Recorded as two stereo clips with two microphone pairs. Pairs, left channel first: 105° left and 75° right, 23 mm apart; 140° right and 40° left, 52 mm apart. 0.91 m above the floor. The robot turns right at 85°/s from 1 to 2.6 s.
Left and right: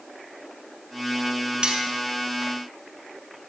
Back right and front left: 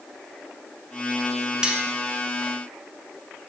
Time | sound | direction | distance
1.6 | cutlery clinking | 35° right | 0.7 m